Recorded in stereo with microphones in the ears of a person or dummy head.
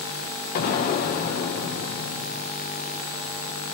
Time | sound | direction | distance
0.6 | an explosion | 60° left (ahead or behind) | 0.9 m